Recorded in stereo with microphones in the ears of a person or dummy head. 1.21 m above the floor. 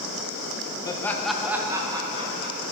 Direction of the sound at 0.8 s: 20° left (ahead or behind).